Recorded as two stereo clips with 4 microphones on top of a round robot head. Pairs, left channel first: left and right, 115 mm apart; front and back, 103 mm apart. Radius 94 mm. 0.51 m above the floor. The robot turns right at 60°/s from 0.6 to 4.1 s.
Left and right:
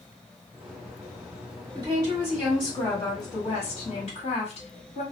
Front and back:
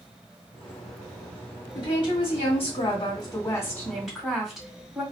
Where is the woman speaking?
50° right, 1.6 m; by 5.0 s 95° left, 1.6 m.